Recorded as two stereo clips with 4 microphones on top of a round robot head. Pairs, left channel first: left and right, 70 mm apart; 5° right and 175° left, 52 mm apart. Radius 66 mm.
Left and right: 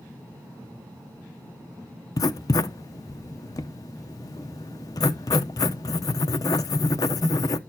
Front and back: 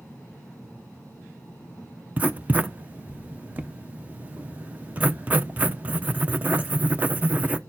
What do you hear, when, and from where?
2.2 s writing: 120° left, 0.7 m